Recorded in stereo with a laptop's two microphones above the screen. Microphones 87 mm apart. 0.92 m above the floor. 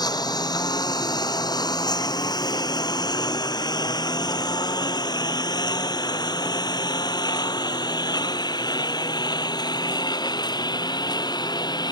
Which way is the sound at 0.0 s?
55° left (ahead or behind).